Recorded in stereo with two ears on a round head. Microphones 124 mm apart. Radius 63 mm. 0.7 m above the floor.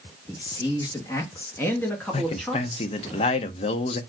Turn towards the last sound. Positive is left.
turn(degrees=45)  # may be behind; listen again after turning